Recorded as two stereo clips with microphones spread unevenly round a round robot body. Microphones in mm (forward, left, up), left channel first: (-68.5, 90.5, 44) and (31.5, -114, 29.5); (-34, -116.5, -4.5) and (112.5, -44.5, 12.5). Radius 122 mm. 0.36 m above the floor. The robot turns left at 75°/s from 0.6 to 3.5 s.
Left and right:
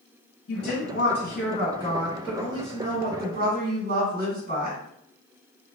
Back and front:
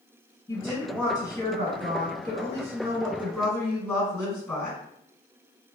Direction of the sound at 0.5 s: 140° left.